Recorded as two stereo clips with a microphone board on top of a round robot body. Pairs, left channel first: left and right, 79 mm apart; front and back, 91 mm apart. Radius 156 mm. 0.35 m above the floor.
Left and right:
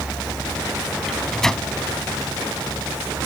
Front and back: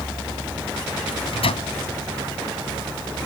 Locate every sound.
1.1 s a microwave: 5° left